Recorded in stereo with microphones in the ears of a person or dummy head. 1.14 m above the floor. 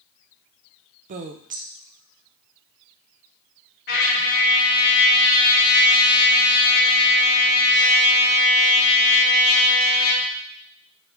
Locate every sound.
1.1 s a woman speaking: 40° right (ahead or behind), 0.5 m
3.9 s a trumpet: 60° left (ahead or behind), 1.2 m